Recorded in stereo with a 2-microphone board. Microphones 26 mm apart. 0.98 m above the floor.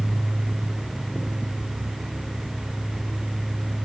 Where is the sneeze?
No sneeze in this recording.